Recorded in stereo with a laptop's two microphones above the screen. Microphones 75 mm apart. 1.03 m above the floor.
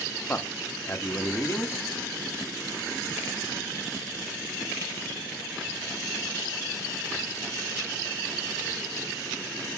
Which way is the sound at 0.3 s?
30° left (ahead or behind).